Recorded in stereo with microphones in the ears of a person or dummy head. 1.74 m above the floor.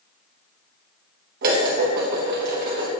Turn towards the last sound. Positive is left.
turn(degrees=-55)  # may be behind; listen again after turning